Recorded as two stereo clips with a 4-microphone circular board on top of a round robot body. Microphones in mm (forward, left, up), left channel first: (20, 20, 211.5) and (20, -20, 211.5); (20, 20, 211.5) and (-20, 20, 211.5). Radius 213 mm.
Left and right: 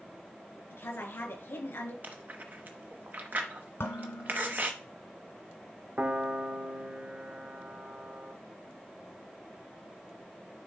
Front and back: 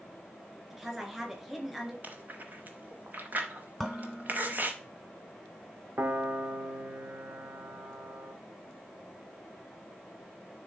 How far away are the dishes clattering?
About 1.6 m.